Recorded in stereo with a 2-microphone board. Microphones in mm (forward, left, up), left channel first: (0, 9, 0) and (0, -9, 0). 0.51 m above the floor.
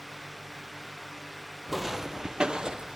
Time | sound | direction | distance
1.7 | footsteps | 15° right (ahead or behind) | 0.8 m